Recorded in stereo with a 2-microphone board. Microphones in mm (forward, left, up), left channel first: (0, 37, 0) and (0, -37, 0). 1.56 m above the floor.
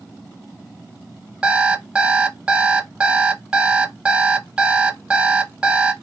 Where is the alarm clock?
10° right (ahead or behind), 0.8 m.